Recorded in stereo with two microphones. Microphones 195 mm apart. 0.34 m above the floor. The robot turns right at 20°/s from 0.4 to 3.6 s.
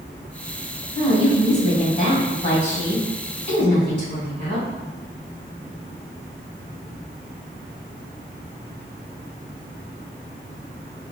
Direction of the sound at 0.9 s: 30° left.